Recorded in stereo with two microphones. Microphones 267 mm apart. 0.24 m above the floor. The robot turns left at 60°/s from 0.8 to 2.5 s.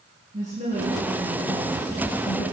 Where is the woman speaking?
150° right, 3 m; by 2.4 s 110° left, 3 m.